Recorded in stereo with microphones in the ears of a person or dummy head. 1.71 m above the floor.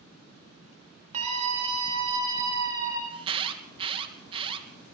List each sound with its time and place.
1.1 s a scream: 45° right (ahead or behind), 4.5 m; by 3.0 s 20° right (ahead or behind), 4 m
3.1 s an alarm: 35° right (ahead or behind), 3 m